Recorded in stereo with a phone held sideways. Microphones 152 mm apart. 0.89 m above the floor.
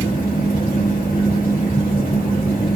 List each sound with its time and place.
0.0 s a fan: 70° left (ahead or behind), 1.0 m